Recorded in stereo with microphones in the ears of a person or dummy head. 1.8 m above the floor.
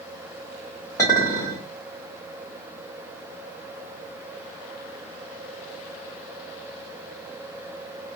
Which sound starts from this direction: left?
A clink, at 1.0 s.